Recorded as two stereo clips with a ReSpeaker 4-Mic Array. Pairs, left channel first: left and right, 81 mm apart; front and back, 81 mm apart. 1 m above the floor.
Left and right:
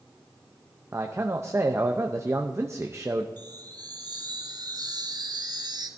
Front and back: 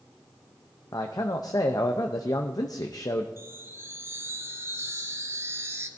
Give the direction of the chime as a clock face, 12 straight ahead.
4 o'clock.